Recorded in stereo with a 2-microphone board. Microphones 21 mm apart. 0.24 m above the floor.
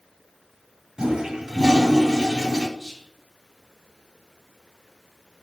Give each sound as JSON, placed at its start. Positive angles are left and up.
{"t": 1.0, "sound": "a toilet flushing", "side_deg": -35, "distance_m": 1.6}
{"t": 2.8, "sound": "whispering", "side_deg": 20, "distance_m": 1.1}